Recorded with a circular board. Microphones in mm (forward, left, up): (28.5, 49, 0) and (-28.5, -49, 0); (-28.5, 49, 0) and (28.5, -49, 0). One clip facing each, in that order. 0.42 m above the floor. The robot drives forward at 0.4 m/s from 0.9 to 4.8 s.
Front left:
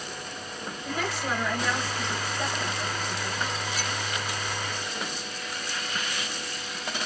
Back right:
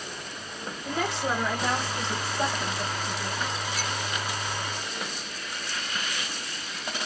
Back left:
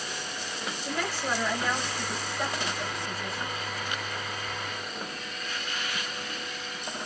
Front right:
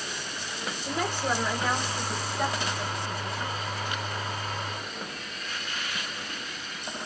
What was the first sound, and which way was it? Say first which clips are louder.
A woman speaking: back right 2 dB, front right 3 dB; 95° right.